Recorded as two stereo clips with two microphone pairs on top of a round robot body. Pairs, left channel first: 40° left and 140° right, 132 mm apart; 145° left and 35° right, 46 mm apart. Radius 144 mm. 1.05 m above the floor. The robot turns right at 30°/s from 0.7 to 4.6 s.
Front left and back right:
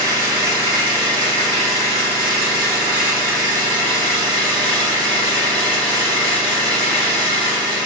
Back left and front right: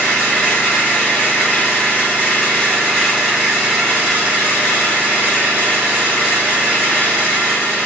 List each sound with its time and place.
0.0 s an engine running: 160° left, 0.7 m; by 7.9 s 85° right, 0.7 m